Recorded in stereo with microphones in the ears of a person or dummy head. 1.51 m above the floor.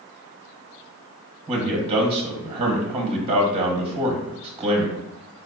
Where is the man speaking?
30° right (ahead or behind), 1.2 m.